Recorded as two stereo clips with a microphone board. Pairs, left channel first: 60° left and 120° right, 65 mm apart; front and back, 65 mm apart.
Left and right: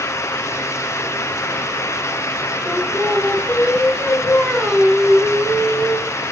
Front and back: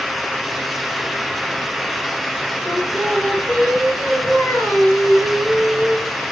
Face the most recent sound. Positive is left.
turn(degrees=20)